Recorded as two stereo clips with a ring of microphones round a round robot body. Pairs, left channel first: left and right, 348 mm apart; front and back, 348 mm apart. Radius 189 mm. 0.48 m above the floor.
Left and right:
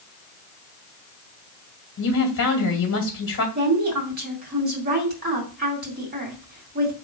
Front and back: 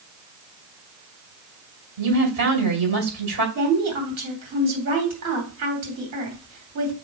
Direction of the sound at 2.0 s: 140° left.